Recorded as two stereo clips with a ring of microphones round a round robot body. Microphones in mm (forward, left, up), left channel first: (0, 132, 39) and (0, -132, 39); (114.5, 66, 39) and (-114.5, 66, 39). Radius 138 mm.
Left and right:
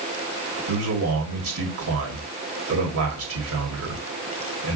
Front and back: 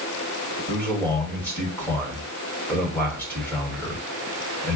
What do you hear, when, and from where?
0.7 s a man speaking: 80° right, 1.8 m